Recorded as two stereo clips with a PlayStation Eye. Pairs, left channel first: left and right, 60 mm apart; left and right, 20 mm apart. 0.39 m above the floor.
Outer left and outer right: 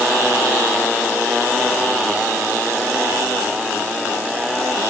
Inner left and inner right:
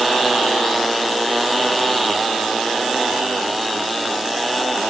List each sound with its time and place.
Only background noise.